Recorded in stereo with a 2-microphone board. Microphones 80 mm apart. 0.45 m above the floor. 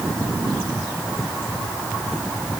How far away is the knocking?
I don't hear knocking.